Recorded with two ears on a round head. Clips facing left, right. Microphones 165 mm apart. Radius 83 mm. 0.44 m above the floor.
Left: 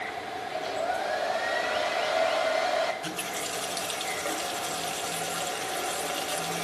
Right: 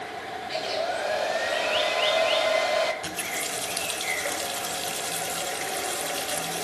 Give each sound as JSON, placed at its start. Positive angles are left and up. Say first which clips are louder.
{"t": 0.5, "sound": "a hair dryer", "louder": "right 2 dB", "side_deg": -35, "distance_m": 1.7}
{"t": 3.0, "sound": "a running tap", "louder": "even", "side_deg": -20, "distance_m": 1.3}